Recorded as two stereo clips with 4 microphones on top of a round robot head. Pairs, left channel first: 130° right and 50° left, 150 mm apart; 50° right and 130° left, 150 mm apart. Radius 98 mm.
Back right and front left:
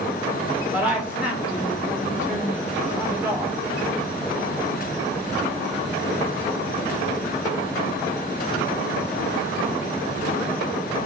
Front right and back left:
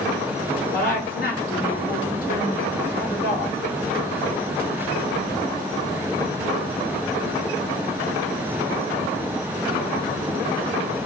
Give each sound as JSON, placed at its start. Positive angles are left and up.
{"t": 0.7, "sound": "a woman speaking", "azimuth_deg": -30, "distance_m": 1.7}